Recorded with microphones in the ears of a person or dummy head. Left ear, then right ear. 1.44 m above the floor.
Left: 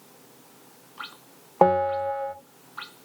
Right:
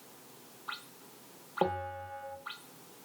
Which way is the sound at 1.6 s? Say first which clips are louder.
Left 14 dB; 60° left (ahead or behind).